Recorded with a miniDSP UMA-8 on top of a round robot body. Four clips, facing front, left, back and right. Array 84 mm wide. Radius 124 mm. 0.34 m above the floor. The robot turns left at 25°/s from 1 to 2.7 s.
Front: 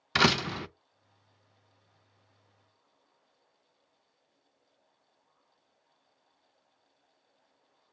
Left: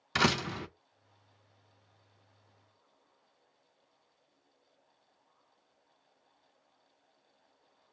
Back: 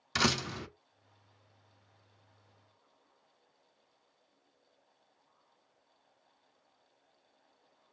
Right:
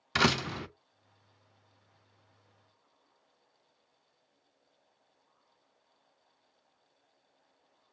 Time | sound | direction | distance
0.1 | a door slam | 5° right | 0.5 m